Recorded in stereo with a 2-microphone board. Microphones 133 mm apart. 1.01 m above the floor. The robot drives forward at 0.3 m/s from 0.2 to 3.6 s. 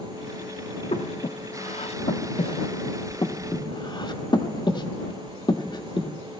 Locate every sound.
0.9 s breathing: 60° left (ahead or behind), 0.7 m; by 6.1 s 35° left (ahead or behind), 1.0 m